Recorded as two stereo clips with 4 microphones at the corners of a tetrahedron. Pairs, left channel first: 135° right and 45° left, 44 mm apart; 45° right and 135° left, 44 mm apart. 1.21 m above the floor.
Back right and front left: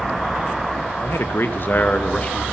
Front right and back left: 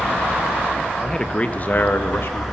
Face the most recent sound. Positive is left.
turn(degrees=-70)